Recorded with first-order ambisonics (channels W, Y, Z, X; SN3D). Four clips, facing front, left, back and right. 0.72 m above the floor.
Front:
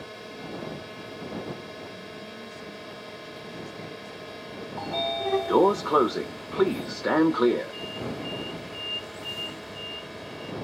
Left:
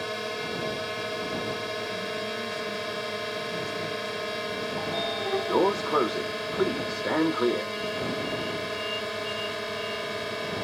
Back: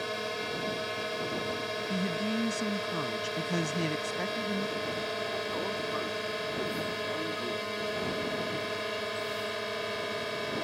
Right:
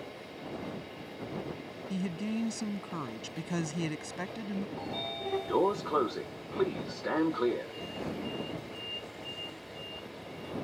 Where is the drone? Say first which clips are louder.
Left 12 dB, back 6 dB; 120° left.